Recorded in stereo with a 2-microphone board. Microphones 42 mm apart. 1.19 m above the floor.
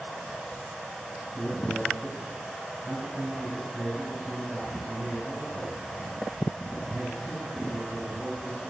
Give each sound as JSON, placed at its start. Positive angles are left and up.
{"t": 1.3, "sound": "a man speaking", "side_deg": 0, "distance_m": 8.0}